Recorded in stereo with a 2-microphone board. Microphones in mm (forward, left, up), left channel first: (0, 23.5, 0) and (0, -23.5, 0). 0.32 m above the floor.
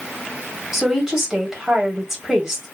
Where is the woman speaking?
10° right (ahead or behind), 1.3 m.